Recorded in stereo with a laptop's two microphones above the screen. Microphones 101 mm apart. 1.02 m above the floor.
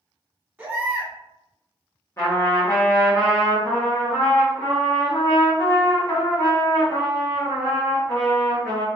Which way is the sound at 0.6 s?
15° right (ahead or behind).